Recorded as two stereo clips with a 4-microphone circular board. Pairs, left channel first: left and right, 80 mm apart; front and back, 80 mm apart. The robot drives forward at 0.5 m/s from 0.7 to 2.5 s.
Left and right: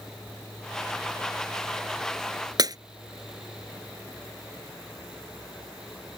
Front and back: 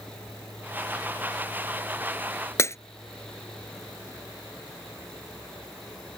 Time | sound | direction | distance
2.6 | breaking glass | 55° right | ?